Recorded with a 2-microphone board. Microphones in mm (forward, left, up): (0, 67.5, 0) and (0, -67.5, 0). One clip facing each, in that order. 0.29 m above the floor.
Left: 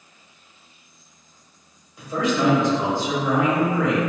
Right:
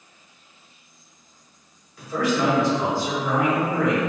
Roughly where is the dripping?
No dripping in this recording.